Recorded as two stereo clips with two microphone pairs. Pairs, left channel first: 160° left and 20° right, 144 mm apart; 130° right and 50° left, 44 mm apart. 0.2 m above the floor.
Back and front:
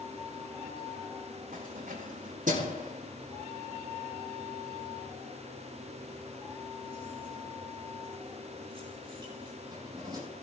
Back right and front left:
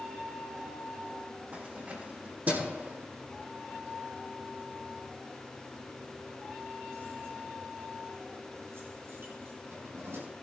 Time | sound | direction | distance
1.5 | keys jangling | 5° right | 6.5 m